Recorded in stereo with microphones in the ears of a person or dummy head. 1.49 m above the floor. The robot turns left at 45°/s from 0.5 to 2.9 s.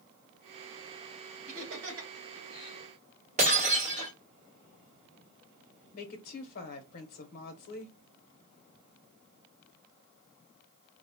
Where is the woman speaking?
55° left (ahead or behind), 0.7 m.